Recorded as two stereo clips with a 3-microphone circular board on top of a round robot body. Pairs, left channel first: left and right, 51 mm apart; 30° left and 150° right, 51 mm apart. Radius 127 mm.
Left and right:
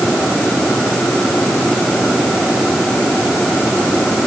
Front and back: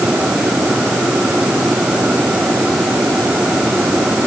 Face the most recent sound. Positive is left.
No sound to turn to.